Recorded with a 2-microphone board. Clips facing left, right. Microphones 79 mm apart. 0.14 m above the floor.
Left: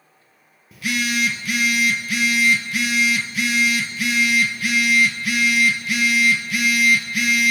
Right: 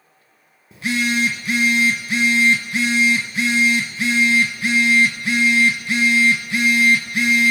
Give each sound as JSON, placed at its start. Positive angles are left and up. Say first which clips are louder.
{"t": 0.7, "sound": "a phone buzzing", "louder": "right 3 dB", "side_deg": -30, "distance_m": 0.9}